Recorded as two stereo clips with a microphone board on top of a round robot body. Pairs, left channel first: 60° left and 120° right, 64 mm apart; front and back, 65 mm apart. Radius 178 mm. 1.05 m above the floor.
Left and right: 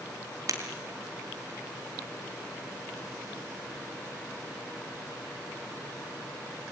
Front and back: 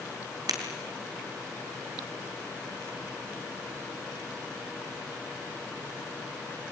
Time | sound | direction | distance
0.5 | breaking glass | 155° right | 3.5 m